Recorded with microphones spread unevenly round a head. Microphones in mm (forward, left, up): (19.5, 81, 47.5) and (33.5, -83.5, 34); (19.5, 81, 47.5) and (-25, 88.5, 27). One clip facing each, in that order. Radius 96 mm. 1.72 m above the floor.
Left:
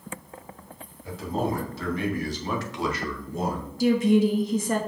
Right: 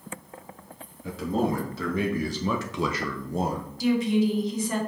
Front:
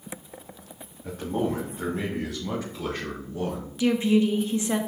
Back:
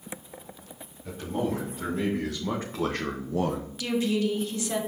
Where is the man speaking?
75° right, 3 m; by 3.7 s 175° right, 1.0 m.